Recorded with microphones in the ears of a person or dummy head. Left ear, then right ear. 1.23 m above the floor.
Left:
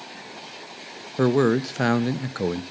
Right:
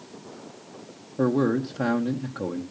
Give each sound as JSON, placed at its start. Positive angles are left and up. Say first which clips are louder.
{"t": 1.2, "sound": "a man speaking", "louder": "left 4 dB", "side_deg": 65, "distance_m": 0.7}